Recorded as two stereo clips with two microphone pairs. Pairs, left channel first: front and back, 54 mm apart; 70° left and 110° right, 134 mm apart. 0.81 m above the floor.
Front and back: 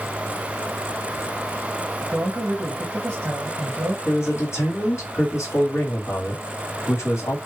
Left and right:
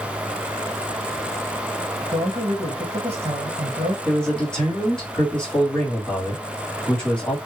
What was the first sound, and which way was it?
A man speaking, 150° right.